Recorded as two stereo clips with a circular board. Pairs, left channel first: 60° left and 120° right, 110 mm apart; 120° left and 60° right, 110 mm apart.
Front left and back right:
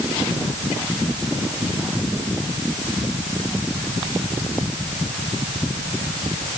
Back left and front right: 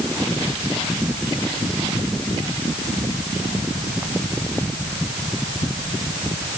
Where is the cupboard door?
No cupboard door in this recording.